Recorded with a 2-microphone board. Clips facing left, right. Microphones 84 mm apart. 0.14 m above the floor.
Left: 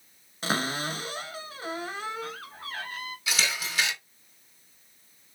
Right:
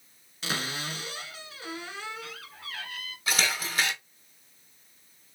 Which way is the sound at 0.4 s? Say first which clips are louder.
Left 5 dB; 40° left (ahead or behind).